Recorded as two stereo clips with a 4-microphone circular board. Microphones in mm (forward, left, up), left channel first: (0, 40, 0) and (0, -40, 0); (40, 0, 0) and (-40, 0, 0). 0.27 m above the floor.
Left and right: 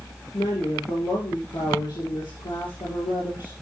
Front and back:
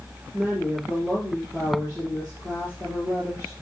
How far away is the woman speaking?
About 5 m.